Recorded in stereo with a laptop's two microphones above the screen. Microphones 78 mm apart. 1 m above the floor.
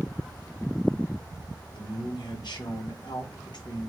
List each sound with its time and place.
1.7 s a man speaking: 70° left (ahead or behind), 1.1 m